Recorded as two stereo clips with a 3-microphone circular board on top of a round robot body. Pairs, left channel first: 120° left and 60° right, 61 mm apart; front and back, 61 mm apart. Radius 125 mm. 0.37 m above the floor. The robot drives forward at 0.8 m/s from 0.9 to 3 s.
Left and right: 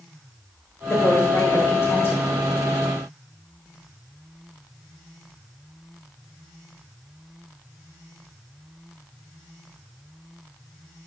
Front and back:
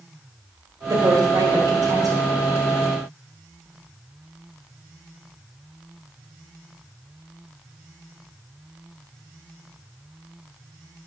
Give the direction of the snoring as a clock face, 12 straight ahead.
No snoring in this recording.